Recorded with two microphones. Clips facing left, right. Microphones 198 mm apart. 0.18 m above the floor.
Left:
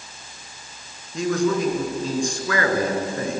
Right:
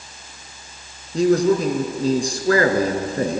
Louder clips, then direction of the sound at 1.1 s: Right 5 dB; 35° right (ahead or behind).